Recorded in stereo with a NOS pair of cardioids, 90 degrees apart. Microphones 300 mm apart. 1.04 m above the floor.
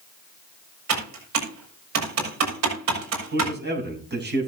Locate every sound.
0.9 s typing on a keyboard: 60° right, 6 m
3.3 s a man speaking: 35° right, 7.5 m